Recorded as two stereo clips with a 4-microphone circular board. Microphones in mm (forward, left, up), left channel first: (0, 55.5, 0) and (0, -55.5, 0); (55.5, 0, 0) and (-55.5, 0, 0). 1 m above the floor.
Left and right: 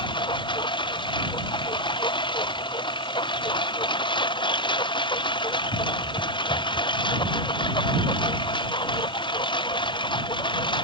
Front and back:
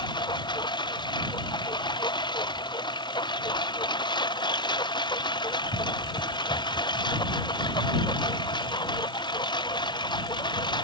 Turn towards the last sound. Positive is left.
turn(degrees=45)